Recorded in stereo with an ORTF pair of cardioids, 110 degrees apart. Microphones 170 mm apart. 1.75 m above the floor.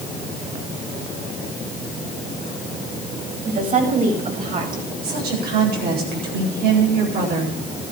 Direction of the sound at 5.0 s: 70° right.